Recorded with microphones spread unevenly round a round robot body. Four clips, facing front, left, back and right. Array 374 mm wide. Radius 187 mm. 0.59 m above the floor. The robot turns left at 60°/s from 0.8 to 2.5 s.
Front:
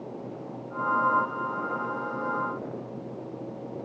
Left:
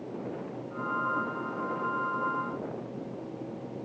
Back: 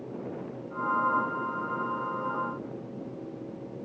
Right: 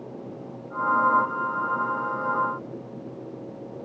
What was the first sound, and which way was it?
Only background noise.